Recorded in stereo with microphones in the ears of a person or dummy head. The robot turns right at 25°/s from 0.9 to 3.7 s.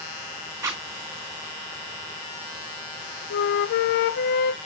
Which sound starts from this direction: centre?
A zipper, at 0.6 s.